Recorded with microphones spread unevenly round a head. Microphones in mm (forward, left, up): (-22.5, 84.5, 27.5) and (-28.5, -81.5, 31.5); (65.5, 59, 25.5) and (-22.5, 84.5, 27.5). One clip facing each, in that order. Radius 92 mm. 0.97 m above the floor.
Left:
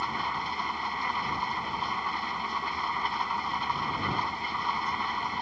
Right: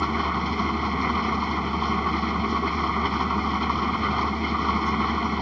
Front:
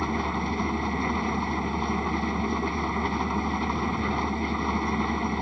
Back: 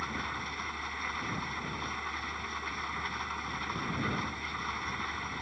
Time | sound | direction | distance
0.0 | an engine running | 55° right | ?